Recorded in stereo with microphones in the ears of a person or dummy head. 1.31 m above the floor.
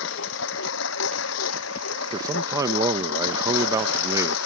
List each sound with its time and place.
0.0 s a lawn mower: 75° left (ahead or behind); by 4.5 s 85° left
2.1 s a man speaking: 15° right (ahead or behind)